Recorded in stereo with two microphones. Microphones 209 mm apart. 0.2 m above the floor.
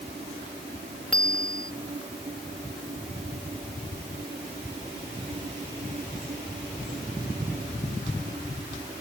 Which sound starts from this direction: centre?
A bicycle bell, at 1.1 s.